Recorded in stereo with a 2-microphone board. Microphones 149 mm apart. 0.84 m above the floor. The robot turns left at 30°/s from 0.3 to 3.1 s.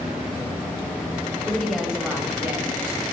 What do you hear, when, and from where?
1.5 s a woman speaking: 5° left, 5.5 m; by 3.0 s 40° right, 5.5 m